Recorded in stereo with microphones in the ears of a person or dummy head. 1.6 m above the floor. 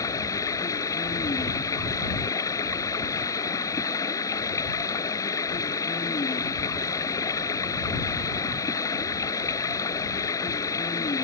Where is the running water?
25° left (ahead or behind).